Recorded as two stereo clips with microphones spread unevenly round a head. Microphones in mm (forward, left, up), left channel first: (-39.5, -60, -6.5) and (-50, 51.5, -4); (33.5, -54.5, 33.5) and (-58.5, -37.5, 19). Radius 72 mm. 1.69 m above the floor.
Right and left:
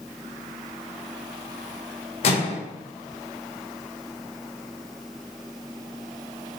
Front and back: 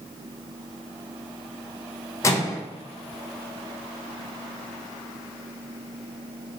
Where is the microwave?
60° right, 0.6 m.